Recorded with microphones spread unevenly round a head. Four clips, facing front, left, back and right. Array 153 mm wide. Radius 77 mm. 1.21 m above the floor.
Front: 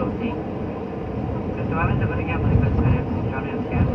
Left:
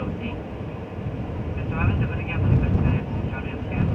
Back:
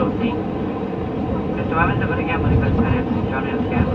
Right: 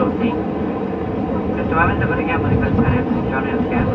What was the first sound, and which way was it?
An aircraft, 110° right.